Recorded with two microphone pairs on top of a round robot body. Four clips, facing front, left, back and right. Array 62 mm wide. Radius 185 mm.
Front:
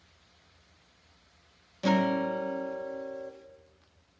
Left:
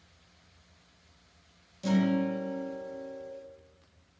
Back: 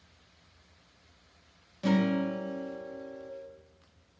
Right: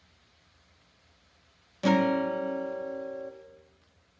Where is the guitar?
70° right, 1.9 m.